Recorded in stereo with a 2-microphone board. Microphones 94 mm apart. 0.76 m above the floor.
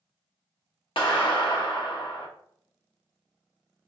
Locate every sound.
1.0 s a clap: 65° left (ahead or behind), 0.9 m